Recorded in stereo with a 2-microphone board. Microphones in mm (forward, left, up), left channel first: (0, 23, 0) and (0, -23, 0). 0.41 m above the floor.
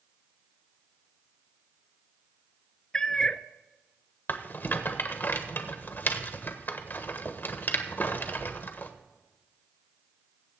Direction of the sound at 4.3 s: 45° left (ahead or behind).